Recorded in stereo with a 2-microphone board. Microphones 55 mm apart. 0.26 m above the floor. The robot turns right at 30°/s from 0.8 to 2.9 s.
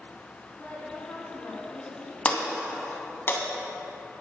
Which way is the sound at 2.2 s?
30° left (ahead or behind).